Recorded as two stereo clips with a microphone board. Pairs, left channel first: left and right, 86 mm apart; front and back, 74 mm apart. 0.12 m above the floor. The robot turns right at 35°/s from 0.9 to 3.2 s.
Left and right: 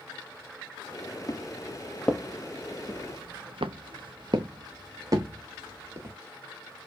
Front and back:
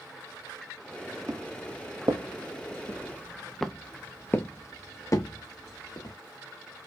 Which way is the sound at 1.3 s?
130° left.